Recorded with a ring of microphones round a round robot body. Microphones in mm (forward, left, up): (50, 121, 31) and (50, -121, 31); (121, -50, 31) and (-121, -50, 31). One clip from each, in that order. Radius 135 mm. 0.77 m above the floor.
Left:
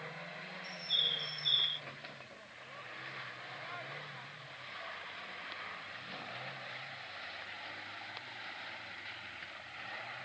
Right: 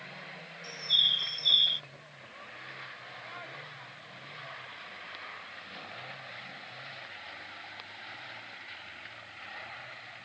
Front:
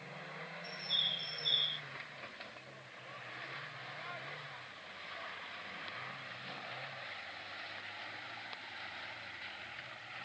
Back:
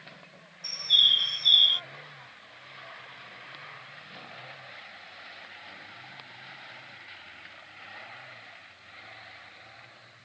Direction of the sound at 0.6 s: 160° right.